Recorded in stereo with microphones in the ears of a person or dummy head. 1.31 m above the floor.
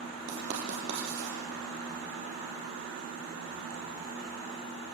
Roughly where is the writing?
Right.